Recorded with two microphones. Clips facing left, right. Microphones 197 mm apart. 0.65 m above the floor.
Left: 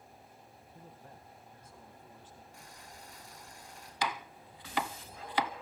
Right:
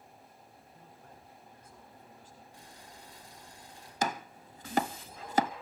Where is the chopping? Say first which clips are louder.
Right 3 dB; 50° right (ahead or behind), 0.7 m.